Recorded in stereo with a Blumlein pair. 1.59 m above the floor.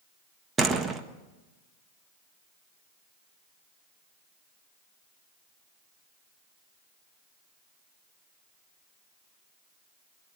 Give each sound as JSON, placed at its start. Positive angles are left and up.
{"t": 0.6, "sound": "a door slam", "azimuth_deg": -15, "distance_m": 1.6}